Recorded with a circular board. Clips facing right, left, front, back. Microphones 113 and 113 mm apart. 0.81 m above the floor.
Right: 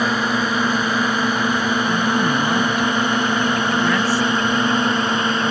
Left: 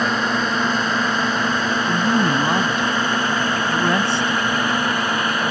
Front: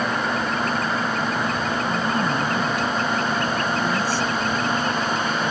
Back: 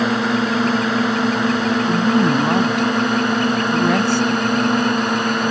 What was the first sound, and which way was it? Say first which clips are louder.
A drone: right 1 dB, back 5 dB; 170° right.